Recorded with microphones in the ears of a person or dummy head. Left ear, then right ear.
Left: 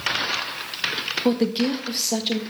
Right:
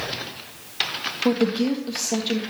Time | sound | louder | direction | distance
1.2 | a woman speaking | right 2 dB | 5° left (ahead or behind) | 1.5 m